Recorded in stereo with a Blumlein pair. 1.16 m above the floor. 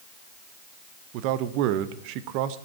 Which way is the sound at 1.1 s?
45° right.